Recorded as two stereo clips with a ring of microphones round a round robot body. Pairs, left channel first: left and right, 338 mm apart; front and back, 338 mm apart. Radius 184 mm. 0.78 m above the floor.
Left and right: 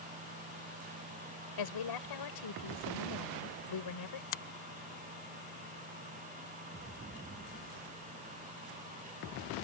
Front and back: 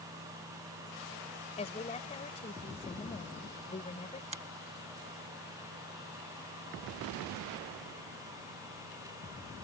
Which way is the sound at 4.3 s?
110° left.